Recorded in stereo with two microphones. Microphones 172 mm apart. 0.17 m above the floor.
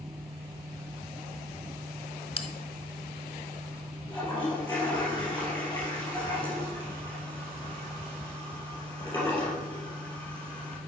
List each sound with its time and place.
2.4 s a bell: 35° left (ahead or behind), 0.6 m
4.1 s a toilet flushing: 15° left (ahead or behind), 3 m